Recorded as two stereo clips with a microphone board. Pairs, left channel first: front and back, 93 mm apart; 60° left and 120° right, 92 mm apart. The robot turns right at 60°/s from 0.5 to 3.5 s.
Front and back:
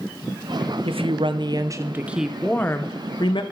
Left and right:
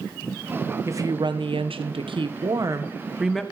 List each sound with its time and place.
0.8 s a woman speaking: straight behind, 1.0 m; by 3.4 s 25° right, 1.0 m